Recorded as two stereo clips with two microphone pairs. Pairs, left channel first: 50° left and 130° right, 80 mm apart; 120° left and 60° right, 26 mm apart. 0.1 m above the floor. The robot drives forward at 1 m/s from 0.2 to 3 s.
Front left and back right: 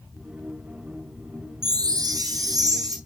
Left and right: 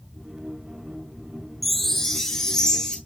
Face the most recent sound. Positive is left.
turn(degrees=-170)